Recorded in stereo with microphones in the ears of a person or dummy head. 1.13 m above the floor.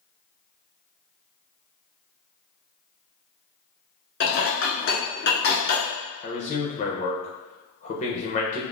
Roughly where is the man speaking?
Left.